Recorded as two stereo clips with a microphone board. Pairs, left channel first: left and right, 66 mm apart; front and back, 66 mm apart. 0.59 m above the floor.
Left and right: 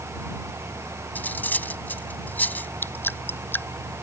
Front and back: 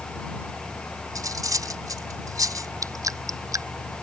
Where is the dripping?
150° left.